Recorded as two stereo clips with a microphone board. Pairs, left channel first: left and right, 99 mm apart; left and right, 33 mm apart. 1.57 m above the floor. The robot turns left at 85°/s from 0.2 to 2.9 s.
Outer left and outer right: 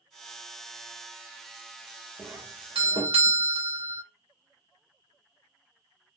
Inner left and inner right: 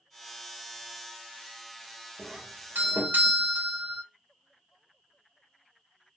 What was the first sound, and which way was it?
A doorbell, 20° right.